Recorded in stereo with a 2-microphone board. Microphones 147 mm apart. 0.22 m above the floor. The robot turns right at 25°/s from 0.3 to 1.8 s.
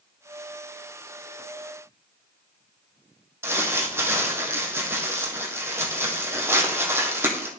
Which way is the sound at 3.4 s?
15° right (ahead or behind).